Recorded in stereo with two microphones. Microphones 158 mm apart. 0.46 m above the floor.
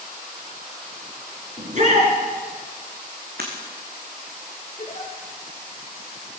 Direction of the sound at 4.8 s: 40° left (ahead or behind).